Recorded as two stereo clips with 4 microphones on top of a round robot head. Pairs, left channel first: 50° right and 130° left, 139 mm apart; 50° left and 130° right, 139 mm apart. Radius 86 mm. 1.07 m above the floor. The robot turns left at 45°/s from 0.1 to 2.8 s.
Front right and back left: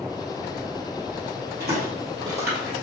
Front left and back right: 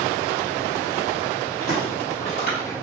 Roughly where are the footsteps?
Behind left.